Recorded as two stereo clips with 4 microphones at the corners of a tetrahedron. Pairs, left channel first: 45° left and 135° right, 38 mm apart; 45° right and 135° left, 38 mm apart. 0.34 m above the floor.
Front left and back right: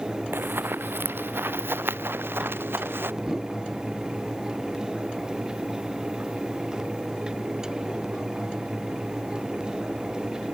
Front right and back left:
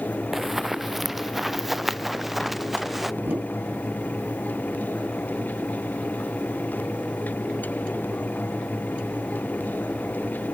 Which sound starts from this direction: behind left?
A whoosh, at 3.2 s.